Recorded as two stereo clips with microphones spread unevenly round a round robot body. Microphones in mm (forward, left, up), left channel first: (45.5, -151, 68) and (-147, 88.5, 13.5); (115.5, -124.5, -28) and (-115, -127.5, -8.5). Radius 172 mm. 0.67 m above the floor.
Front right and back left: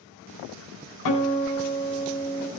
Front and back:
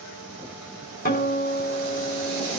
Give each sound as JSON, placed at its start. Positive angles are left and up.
{"t": 1.1, "sound": "a guitar", "azimuth_deg": -50, "distance_m": 4.5}